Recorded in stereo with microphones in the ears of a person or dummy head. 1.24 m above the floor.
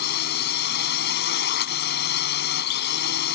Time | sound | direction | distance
0.0 | a drone | 65° left (ahead or behind) | ?